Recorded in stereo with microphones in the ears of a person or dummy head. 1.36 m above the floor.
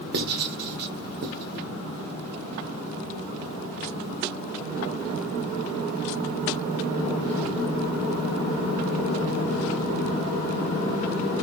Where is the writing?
55° right (ahead or behind), 0.8 m.